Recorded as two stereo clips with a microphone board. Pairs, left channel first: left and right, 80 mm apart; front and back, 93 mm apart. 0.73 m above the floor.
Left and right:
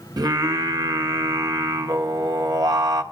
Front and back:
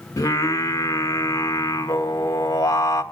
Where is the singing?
55° right, 1.2 m.